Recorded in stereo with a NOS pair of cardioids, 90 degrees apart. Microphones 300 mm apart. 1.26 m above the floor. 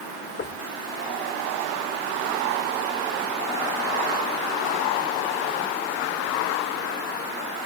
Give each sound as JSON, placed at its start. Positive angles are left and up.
{"t": 0.4, "sound": "knocking", "azimuth_deg": 35}